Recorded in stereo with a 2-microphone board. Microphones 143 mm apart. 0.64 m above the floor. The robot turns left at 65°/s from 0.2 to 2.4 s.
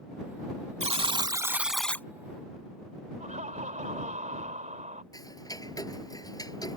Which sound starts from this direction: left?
Ticking, at 5.1 s.